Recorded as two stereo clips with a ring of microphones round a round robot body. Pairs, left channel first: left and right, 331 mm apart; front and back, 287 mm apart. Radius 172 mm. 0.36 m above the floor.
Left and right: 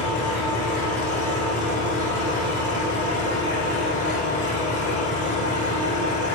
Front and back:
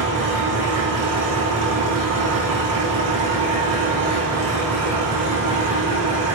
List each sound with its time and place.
0.0 s an engine running: 150° left, 7 m